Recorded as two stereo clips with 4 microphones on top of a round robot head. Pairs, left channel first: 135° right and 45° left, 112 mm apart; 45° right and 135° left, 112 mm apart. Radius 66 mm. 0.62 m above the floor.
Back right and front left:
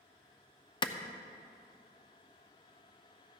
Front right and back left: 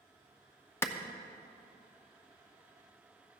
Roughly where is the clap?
Right.